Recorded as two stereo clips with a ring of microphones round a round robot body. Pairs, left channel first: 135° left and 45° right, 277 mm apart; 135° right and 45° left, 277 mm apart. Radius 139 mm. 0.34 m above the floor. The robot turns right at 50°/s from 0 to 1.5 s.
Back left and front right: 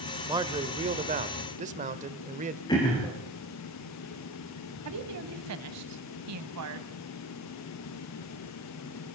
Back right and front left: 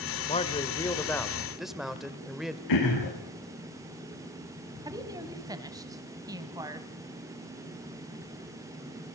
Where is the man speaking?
105° right, 1.5 m; by 2.6 s 40° right, 1.5 m.